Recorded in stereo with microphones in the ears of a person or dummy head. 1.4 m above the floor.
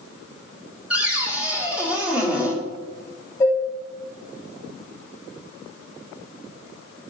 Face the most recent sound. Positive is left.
turn(degrees=20)  # may be behind; listen again after turning